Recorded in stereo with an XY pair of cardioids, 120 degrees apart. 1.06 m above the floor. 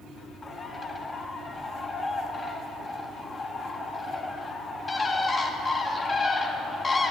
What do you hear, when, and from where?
0.4 s a bird: 25° left, 0.6 m